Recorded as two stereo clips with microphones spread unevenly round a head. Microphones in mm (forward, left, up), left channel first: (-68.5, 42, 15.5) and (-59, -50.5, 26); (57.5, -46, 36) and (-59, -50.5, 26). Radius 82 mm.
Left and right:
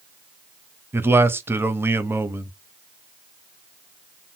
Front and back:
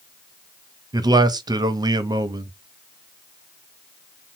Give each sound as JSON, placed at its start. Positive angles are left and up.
{"t": 0.9, "sound": "a man speaking", "azimuth_deg": -150, "distance_m": 0.7}